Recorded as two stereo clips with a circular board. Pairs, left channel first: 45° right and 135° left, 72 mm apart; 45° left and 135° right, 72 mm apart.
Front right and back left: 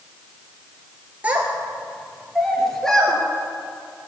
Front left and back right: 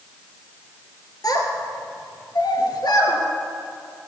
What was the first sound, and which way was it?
A child speaking, 70° left.